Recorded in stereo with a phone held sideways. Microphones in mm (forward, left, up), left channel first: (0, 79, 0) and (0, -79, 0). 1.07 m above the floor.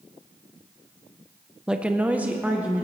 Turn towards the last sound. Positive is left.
turn(degrees=-10)  # may be behind; listen again after turning